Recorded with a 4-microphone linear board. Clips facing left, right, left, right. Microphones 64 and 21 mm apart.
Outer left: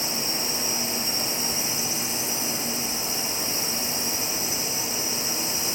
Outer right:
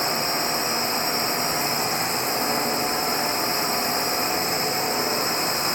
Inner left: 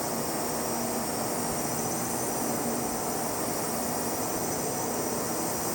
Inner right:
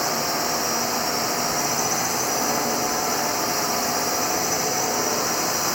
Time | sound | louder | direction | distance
0.0 | a drone | outer right 7 dB, inner right 7 dB | 50° right (ahead or behind) | ?